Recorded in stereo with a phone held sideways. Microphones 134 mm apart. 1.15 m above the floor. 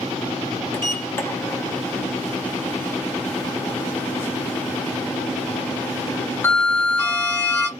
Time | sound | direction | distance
0.7 | a sliding door | 20° left (ahead or behind) | 0.8 m